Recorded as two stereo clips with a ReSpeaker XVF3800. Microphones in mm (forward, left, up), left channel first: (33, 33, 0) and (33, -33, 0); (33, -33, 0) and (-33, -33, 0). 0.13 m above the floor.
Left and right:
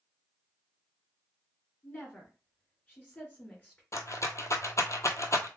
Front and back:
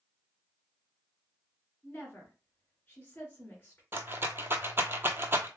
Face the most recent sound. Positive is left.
turn(degrees=125)